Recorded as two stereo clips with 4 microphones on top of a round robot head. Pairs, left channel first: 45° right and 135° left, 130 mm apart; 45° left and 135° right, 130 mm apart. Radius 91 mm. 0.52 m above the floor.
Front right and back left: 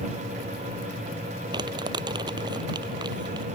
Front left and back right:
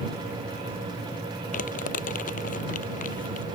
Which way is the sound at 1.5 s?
75° left.